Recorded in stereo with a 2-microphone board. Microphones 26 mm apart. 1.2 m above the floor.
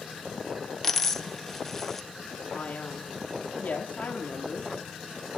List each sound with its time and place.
0.8 s a dropped coin: 10° left (ahead or behind), 0.6 m
2.5 s a man speaking: 75° left (ahead or behind), 1.7 m